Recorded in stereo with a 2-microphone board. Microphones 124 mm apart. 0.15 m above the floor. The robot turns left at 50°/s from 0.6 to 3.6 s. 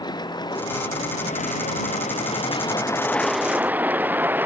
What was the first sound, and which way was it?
A vehicle, 35° left (ahead or behind).